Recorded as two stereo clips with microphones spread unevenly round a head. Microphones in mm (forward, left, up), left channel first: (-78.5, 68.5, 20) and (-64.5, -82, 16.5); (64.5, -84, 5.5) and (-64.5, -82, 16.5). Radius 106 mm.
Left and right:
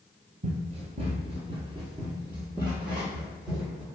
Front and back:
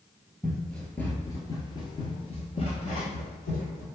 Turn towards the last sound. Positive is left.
turn(degrees=10)